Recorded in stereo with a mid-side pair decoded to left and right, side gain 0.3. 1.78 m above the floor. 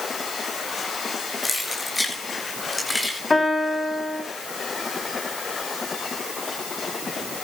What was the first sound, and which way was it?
Keys jangling, 30° left.